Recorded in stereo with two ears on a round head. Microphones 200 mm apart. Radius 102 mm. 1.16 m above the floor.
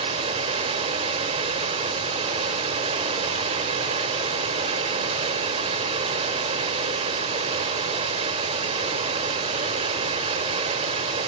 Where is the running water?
30° right (ahead or behind), 1.5 m.